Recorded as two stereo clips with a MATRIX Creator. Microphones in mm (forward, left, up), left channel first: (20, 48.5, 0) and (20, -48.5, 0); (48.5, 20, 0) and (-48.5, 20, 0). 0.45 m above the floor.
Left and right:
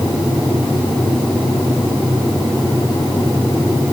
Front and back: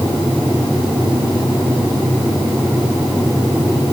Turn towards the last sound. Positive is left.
No sound to turn to.